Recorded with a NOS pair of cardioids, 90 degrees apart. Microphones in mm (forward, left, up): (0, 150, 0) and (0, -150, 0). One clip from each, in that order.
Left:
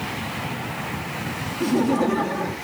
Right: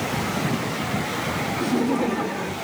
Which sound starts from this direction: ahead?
Laughter, at 1.6 s.